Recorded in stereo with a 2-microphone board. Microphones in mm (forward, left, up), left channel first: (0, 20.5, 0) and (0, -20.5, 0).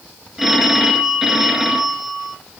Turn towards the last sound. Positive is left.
turn(degrees=-5)  # may be behind; listen again after turning